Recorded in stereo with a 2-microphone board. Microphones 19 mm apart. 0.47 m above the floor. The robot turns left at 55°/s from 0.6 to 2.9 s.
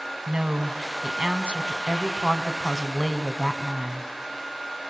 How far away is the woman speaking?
About 2.5 m.